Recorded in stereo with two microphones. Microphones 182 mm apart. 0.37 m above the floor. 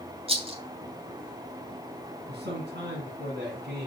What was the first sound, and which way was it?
A rattle, 30° right (ahead or behind).